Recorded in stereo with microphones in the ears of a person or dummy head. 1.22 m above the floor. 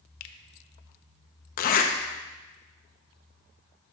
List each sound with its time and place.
0.2 s a finger snap: 65° left (ahead or behind), 0.8 m
1.6 s a zipper: 50° left (ahead or behind), 0.7 m